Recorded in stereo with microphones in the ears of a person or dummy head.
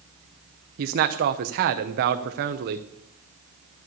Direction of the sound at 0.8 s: 50° right (ahead or behind).